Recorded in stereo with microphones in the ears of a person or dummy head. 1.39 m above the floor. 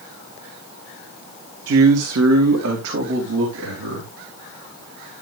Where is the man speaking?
65° right (ahead or behind), 1.3 m; by 4.1 s 70° right (ahead or behind), 4 m.